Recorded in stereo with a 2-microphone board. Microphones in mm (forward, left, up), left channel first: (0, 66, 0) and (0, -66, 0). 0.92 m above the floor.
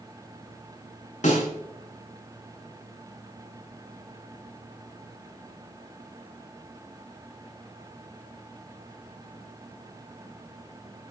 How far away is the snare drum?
About 6.5 m.